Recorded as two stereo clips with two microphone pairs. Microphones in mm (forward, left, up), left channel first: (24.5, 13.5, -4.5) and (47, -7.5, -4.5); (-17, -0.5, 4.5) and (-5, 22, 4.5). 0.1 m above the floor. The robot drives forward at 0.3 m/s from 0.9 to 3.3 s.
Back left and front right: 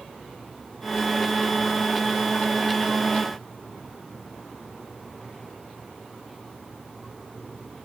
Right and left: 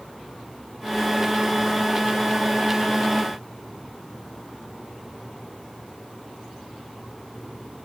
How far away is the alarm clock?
No alarm clock in this recording.